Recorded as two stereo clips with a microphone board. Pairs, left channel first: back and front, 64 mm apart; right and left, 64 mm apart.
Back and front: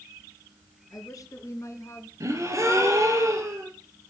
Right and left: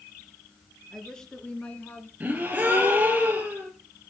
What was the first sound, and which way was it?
A woman speaking, 170° right.